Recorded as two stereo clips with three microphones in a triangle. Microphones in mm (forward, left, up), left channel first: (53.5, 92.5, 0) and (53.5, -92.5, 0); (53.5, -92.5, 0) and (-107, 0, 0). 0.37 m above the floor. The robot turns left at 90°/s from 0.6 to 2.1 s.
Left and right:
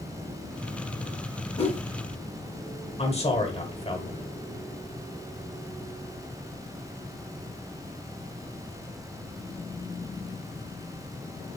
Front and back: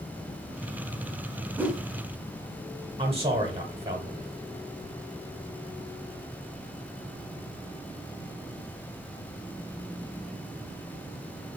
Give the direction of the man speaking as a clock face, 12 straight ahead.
8 o'clock.